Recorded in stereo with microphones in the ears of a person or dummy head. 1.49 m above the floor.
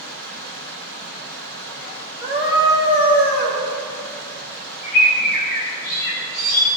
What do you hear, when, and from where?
0.0 s running water: 20° left (ahead or behind), 3 m
2.2 s a scream: 65° left (ahead or behind), 3.5 m
4.8 s a bird: 55° left (ahead or behind), 3.5 m